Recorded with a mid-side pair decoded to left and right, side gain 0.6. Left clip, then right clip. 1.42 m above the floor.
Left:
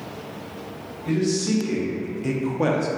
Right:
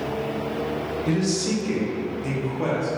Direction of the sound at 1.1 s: 20° right.